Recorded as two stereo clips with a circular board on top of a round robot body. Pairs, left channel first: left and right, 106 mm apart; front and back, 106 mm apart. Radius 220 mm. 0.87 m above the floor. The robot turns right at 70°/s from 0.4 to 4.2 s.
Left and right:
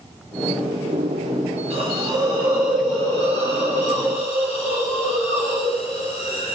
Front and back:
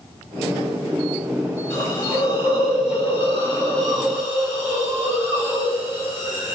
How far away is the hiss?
About 2.0 m.